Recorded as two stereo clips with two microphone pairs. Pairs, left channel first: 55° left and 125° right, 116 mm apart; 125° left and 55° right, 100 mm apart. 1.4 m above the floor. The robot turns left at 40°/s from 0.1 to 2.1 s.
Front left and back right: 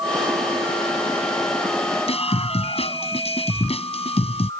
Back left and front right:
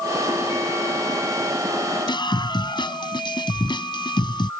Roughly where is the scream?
Left.